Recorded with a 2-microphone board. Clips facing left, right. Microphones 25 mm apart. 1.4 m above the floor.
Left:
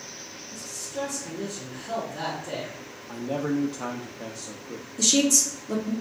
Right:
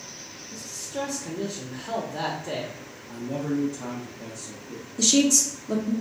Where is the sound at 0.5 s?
40° right (ahead or behind), 1.0 m.